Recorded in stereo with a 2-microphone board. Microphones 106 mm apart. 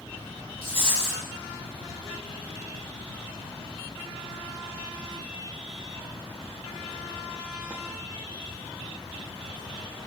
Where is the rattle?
65° left (ahead or behind), 3.5 m.